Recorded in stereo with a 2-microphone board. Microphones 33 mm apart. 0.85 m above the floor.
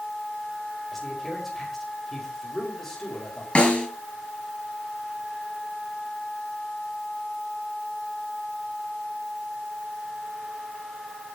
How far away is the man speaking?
About 5 m.